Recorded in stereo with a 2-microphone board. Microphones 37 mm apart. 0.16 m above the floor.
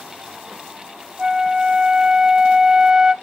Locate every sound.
1.2 s a flute: 25° right (ahead or behind), 0.7 m